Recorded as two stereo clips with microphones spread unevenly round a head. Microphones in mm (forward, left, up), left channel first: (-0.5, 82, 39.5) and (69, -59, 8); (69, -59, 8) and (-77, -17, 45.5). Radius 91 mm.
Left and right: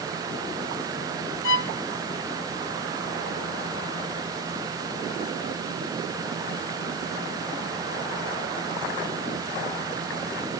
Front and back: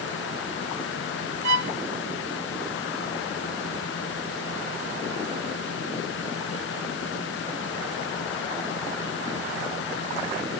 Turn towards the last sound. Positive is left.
turn(degrees=140)